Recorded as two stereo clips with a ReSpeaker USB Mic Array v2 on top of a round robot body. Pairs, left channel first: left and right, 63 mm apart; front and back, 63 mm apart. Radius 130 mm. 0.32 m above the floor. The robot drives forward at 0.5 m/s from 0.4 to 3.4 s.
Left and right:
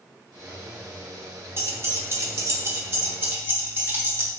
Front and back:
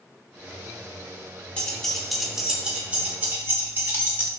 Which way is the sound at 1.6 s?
70° right.